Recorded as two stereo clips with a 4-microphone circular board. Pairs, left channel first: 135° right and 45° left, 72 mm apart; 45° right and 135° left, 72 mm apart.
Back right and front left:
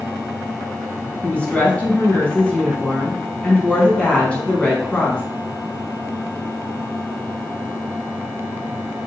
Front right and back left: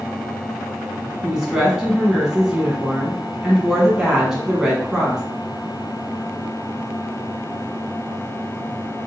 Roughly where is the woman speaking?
Behind.